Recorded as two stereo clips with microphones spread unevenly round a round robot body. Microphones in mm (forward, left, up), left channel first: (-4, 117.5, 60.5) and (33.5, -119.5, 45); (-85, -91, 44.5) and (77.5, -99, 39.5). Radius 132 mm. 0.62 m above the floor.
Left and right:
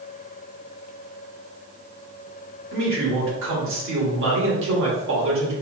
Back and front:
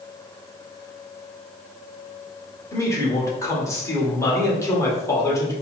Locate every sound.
2.7 s a man speaking: 110° right, 1.8 m